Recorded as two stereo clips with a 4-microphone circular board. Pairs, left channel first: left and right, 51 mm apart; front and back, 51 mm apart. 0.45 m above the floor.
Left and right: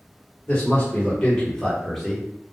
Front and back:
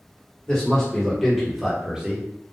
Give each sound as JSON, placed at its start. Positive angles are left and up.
{"t": 0.5, "sound": "a man speaking", "azimuth_deg": 60, "distance_m": 1.3}